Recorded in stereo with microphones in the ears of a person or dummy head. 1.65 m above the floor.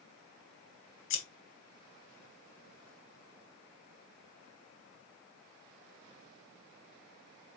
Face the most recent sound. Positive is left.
turn(degrees=65)  # may be behind; listen again after turning